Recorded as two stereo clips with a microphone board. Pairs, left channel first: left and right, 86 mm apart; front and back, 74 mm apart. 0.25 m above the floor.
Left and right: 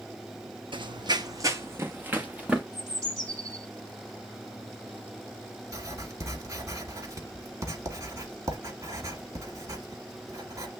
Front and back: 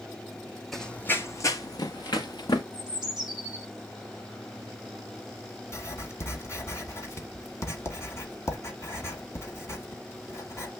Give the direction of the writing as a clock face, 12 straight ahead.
2 o'clock.